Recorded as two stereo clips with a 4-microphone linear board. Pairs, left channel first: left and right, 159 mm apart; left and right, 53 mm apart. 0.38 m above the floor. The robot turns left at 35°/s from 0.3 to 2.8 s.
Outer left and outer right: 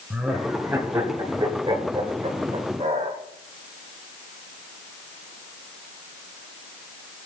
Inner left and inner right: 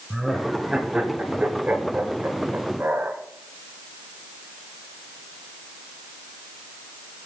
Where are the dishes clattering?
I don't hear dishes clattering.